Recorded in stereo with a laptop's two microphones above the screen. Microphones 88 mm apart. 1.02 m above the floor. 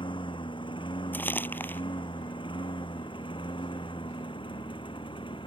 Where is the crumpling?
20° left (ahead or behind).